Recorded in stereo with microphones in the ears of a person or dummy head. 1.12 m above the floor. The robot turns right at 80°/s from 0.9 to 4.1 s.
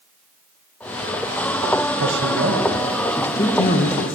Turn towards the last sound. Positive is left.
turn(degrees=80)